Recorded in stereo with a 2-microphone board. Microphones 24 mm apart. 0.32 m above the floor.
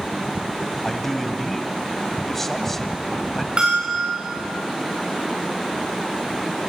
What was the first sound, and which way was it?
A man speaking, 10° left (ahead or behind).